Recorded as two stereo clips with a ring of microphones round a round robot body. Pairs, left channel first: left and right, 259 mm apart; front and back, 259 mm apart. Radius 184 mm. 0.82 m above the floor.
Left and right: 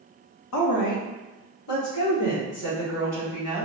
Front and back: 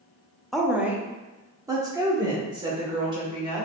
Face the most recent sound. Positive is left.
turn(degrees=110)